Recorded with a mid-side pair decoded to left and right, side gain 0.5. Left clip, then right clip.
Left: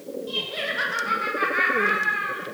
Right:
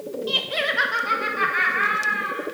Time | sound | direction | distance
0.3 | laughter | 60° right | 1.0 m